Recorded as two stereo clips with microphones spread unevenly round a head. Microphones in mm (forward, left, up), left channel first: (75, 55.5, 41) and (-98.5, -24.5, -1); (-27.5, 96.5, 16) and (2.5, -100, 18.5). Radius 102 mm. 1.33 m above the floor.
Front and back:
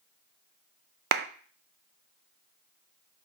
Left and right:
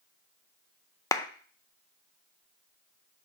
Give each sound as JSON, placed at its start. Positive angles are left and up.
{"t": 1.1, "sound": "a clap", "azimuth_deg": 170, "distance_m": 0.5}